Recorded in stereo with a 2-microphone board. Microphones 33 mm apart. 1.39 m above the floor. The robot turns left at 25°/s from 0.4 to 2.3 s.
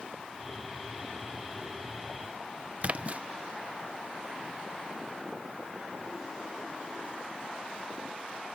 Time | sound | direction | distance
2.8 | a splash | 45° right (ahead or behind) | ?